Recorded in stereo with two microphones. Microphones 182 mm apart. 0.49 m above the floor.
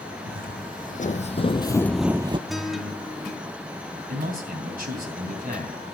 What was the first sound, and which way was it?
Footsteps, 55° left (ahead or behind).